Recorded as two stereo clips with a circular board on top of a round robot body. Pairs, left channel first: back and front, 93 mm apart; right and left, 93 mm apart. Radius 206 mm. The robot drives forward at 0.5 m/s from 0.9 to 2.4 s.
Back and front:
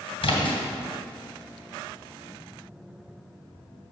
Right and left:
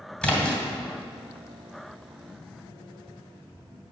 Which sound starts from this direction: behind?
A splash, at 0.2 s.